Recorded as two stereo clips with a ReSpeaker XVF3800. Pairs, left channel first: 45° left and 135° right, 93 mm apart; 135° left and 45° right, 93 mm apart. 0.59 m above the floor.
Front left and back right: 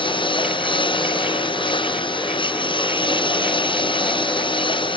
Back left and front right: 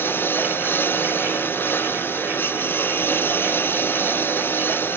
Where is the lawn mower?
70° left.